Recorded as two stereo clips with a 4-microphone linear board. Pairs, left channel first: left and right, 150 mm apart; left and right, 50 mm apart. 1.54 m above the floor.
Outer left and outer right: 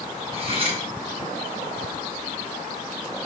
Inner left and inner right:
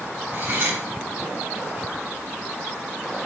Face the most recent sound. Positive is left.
turn(degrees=-40)  # may be behind; listen again after turning